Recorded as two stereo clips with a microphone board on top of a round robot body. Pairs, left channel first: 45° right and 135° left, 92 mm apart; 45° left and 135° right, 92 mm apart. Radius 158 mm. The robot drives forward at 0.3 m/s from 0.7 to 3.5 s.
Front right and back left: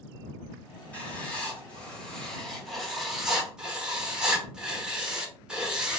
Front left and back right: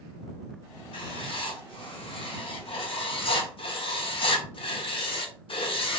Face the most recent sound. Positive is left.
turn(degrees=55)